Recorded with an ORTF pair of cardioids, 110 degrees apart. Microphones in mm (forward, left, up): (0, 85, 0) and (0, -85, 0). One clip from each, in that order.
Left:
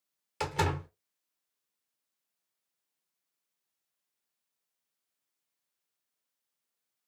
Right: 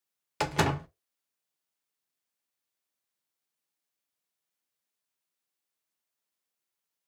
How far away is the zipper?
No zipper in this recording.